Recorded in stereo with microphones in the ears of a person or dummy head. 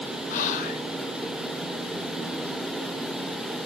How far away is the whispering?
About 0.7 m.